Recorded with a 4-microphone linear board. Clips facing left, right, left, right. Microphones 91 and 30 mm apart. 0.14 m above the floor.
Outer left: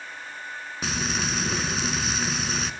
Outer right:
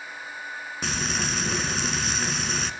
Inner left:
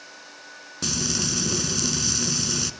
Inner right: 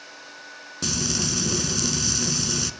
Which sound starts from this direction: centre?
Frying, at 0.8 s.